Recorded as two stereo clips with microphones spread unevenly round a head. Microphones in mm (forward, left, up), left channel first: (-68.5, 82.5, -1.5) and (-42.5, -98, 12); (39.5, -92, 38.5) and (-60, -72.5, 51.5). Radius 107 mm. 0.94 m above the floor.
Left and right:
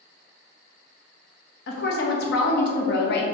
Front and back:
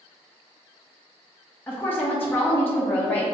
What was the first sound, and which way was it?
A woman speaking, 65° left.